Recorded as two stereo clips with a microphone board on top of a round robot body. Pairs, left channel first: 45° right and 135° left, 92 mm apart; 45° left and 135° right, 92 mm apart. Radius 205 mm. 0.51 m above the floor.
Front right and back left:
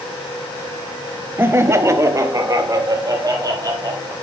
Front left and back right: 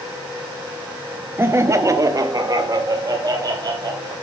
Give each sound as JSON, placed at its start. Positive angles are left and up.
{"t": 1.4, "sound": "laughter", "azimuth_deg": 180, "distance_m": 1.3}